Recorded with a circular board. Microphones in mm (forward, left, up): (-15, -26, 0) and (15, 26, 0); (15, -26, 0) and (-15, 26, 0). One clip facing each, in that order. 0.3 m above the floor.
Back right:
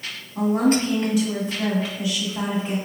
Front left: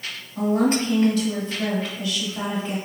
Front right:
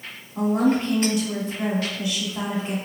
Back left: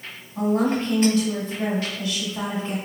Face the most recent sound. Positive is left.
turn(degrees=-85)